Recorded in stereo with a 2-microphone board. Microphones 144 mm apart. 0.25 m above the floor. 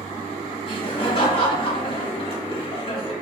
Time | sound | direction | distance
0.7 | laughter | 40° left (ahead or behind) | 1.2 m